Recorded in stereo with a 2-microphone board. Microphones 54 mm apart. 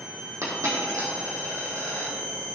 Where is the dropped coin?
80° right, 3.5 m.